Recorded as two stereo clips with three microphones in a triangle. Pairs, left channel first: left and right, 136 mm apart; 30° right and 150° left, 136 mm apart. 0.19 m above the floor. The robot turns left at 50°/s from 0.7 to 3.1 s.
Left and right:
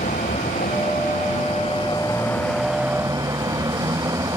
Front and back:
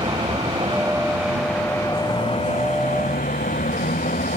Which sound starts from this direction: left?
A vehicle, at 0.0 s.